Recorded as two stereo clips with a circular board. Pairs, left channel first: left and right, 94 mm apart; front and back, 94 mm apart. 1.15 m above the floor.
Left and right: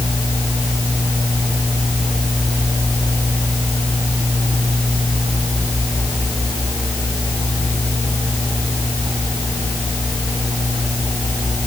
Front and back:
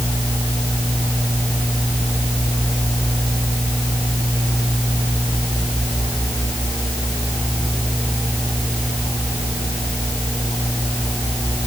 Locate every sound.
Only background noise.